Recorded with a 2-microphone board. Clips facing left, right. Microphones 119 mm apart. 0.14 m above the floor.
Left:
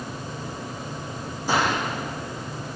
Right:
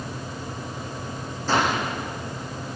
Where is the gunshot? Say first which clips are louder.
Right 1 dB; 15° left (ahead or behind), 9 m.